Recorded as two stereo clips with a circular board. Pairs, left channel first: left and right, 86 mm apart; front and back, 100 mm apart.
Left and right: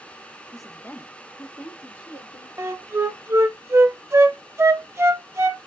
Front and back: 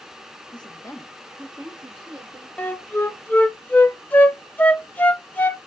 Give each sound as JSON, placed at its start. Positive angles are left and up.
{"t": 0.5, "sound": "a woman speaking", "azimuth_deg": -10, "distance_m": 0.6}
{"t": 2.6, "sound": "a flute", "azimuth_deg": -60, "distance_m": 0.5}